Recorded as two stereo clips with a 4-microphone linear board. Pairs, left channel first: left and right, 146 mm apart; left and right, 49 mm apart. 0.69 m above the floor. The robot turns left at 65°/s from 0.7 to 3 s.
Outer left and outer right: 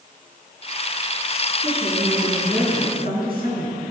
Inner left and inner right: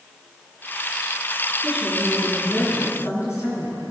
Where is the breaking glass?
No breaking glass in this recording.